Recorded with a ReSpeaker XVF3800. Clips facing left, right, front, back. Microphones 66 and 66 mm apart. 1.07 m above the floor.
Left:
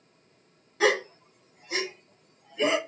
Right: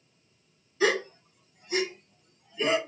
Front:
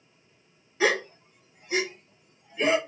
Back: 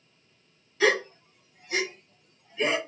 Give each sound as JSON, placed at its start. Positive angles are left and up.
{"t": 0.8, "sound": "a gasp", "azimuth_deg": 65, "distance_m": 1.2}